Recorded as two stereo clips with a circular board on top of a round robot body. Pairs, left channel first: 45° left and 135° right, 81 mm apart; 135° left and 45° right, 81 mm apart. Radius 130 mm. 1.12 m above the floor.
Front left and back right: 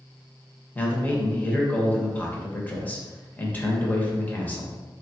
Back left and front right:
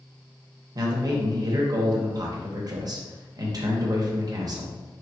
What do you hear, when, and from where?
0.8 s a man speaking: 25° right, 0.8 m